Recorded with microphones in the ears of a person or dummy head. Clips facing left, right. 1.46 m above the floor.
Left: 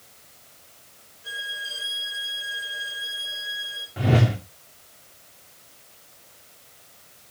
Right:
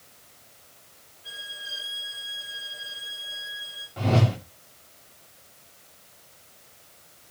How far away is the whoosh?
About 2 m.